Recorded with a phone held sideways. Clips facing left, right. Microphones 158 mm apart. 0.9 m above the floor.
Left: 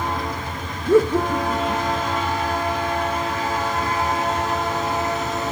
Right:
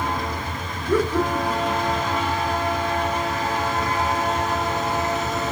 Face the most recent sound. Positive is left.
turn(degrees=25)  # may be behind; listen again after turning